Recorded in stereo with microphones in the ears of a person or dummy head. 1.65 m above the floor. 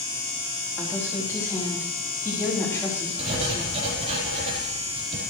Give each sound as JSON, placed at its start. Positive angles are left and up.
{"t": 0.8, "sound": "a woman speaking", "side_deg": 15, "distance_m": 4.0}
{"t": 3.2, "sound": "writing", "side_deg": -35, "distance_m": 4.0}